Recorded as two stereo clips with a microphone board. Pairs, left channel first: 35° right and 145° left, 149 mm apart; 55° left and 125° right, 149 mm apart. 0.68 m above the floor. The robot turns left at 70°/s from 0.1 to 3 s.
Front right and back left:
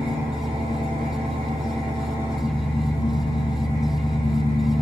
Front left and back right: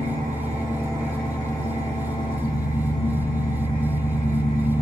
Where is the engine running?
140° right, 1.9 m; by 4.8 s 15° left, 1.9 m.